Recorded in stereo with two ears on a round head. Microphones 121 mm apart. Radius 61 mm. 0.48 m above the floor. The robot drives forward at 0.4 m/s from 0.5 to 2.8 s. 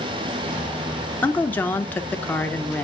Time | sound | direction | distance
1.2 | a woman speaking | 10° left (ahead or behind) | 0.7 m